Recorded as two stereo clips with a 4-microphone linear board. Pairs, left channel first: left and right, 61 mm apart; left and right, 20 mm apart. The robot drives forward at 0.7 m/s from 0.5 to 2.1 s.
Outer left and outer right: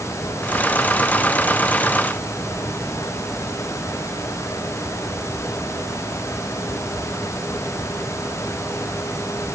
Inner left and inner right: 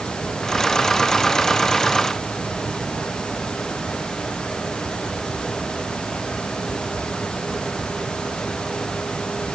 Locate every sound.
Only background noise.